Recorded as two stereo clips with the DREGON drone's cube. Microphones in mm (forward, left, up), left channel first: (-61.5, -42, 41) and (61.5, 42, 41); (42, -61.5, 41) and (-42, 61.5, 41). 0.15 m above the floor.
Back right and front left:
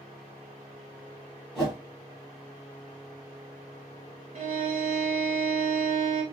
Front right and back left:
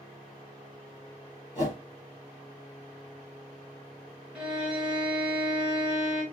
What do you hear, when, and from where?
1.6 s a whoosh: 50° right, 2.5 m
4.3 s a violin: 45° left, 1.2 m